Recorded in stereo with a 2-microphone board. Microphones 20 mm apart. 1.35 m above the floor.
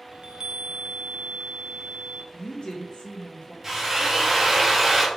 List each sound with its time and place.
0.1 s a chime: 55° right (ahead or behind), 0.5 m
2.3 s a woman speaking: 55° left (ahead or behind), 0.7 m
3.6 s a drill: 20° right (ahead or behind), 0.9 m